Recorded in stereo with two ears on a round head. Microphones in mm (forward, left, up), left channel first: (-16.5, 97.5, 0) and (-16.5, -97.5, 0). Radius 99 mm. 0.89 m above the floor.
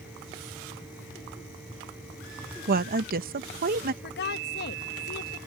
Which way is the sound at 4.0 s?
50° left (ahead or behind).